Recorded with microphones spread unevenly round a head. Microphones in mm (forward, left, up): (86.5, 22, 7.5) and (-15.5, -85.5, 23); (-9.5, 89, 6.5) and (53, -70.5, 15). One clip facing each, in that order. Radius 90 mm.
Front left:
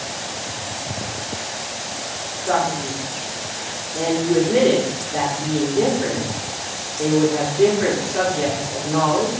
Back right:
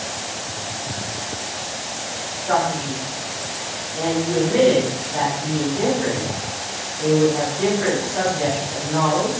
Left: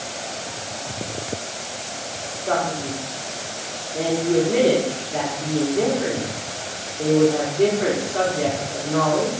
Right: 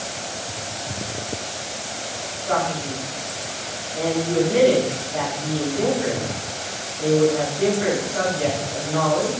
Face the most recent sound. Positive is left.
turn(degrees=80)